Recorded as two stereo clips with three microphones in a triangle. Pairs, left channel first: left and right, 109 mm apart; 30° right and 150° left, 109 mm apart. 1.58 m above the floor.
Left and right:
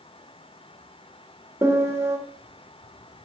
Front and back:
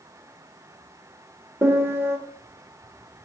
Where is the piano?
145° right, 1.7 m.